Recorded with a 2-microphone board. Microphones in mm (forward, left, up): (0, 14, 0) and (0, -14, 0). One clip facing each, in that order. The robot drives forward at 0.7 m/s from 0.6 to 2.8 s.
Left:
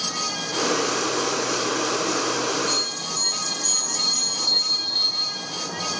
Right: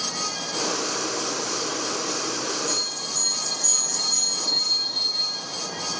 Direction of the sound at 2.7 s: 60° left (ahead or behind).